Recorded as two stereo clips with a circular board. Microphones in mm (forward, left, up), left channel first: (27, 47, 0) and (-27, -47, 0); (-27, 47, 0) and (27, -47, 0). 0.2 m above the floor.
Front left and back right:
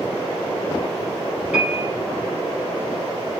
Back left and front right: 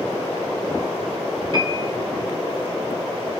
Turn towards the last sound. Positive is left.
turn(degrees=-45)